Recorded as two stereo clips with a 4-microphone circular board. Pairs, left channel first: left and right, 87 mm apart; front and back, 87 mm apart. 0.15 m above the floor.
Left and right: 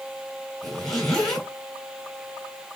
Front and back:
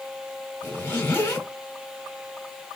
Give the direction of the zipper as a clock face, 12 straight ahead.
12 o'clock.